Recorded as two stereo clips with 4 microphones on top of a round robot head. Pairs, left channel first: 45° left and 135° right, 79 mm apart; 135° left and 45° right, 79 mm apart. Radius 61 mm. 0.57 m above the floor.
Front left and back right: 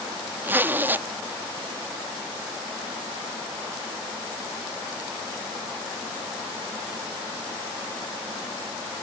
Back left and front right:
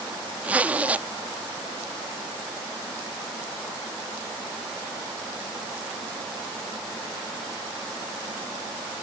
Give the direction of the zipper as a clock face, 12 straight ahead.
3 o'clock.